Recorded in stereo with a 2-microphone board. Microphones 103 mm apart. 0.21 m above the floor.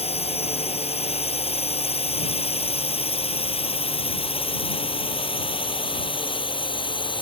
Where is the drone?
75° left (ahead or behind); by 7.2 s 50° left (ahead or behind).